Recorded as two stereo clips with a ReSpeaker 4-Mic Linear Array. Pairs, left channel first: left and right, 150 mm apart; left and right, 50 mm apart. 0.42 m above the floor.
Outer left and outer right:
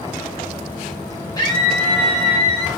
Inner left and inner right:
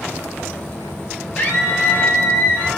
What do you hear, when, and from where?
1.4 s a scream: 25° left (ahead or behind), 1.4 m; by 2.7 s 40° left (ahead or behind), 1.9 m